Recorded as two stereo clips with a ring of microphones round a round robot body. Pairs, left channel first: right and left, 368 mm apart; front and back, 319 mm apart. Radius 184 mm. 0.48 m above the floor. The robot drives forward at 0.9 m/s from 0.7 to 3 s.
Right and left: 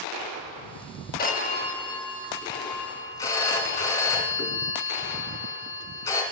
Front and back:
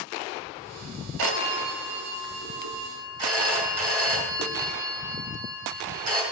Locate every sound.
1.2 s a phone ringing: 155° right, 0.8 m; by 6.2 s 175° right, 2.5 m